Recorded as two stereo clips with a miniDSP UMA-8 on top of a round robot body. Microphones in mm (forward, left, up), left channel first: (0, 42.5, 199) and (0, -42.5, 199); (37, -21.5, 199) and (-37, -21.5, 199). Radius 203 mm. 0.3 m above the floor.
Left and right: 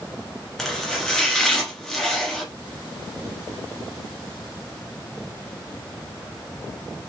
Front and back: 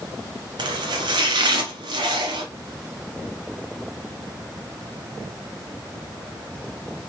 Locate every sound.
0.6 s chopping: 175° left, 0.6 m